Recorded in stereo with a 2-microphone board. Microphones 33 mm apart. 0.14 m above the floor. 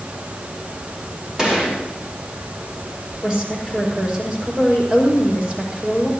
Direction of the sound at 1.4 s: 20° right (ahead or behind).